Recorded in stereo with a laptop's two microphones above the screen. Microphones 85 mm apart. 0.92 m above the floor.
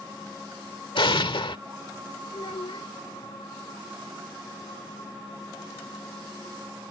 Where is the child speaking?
85° left.